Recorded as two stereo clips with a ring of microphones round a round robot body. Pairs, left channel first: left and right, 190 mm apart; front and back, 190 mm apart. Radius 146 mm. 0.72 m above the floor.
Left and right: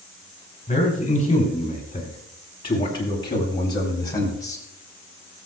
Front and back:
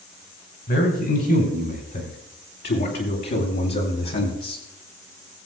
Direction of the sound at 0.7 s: 30° left.